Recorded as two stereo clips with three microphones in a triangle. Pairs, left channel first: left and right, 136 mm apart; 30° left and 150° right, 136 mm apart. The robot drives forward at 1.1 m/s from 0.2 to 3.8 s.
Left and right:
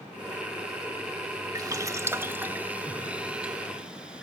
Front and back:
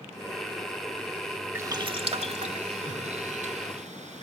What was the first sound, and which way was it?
Boiling, 100° right.